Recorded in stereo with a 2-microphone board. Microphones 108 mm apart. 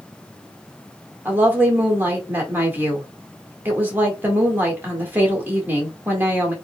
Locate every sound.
1.2 s a woman speaking: 15° right (ahead or behind), 1.5 m